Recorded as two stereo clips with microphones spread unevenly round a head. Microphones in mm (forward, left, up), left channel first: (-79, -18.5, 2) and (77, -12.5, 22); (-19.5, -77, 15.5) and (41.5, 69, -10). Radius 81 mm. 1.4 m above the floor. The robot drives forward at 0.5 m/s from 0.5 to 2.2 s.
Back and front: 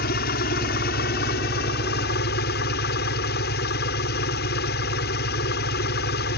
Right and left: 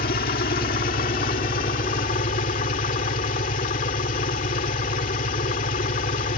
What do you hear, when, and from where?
0.0 s an engine running: 150° right; by 6.4 s 155° right